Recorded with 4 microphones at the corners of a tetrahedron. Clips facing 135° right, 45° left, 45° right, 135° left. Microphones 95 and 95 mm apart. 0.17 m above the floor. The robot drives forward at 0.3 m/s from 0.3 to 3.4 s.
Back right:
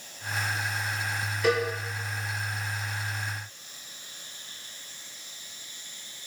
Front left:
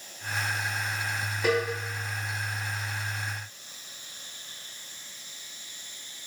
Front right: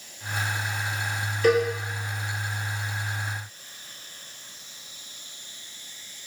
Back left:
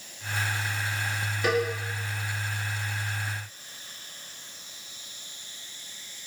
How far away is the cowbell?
About 1.8 m.